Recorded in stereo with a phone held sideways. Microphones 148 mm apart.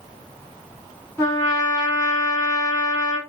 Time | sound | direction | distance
1.2 | a trumpet | 20° left (ahead or behind) | 2.5 m